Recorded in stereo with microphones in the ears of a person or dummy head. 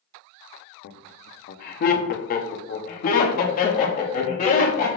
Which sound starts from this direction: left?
Laughter, at 0.8 s.